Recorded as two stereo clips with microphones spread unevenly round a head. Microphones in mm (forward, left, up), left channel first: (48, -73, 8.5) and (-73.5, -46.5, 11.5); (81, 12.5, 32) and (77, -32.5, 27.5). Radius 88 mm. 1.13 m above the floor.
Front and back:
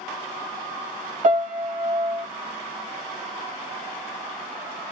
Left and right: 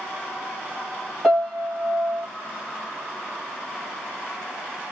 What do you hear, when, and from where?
1.2 s a piano: straight behind, 1.9 m